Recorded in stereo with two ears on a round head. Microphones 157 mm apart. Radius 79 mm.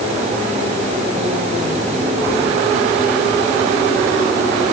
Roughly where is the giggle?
I don't hear a giggle.